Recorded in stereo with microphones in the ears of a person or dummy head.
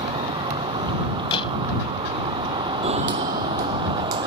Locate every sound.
0.0 s a vehicle: 30° right (ahead or behind)
1.3 s a door slam: 35° left (ahead or behind)
2.8 s footsteps: 40° right (ahead or behind); by 4.3 s 55° right (ahead or behind)